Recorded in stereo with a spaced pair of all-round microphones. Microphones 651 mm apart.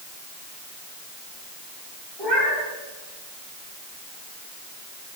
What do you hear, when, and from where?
2.2 s a cat meowing: 40° left (ahead or behind), 3.5 m